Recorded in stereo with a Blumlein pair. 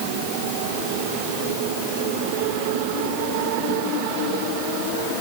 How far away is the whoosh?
I don't hear a whoosh.